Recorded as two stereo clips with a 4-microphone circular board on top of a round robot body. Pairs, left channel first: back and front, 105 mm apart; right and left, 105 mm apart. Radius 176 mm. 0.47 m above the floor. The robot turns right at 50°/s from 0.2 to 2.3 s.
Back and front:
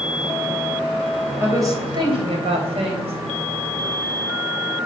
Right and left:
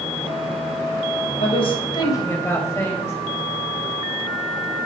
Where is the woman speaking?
70° right, 3.5 m; by 3.1 s 25° right, 3.5 m.